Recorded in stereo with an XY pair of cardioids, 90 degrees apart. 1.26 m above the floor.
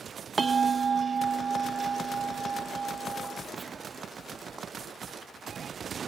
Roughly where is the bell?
Ahead right.